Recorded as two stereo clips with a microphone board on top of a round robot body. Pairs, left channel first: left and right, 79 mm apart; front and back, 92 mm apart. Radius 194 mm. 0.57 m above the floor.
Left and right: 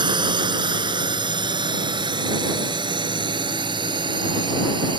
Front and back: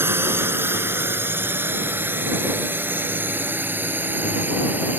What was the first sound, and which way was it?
A drone, 115° right.